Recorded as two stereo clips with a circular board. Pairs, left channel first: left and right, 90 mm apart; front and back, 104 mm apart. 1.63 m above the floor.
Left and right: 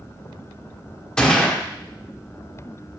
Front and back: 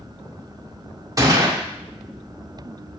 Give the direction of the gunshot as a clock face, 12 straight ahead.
7 o'clock.